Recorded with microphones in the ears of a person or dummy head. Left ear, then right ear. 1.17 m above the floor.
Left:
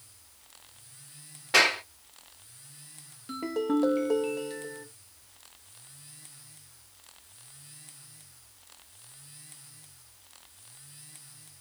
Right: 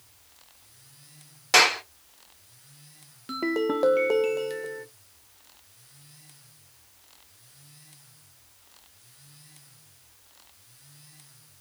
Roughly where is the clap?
Right.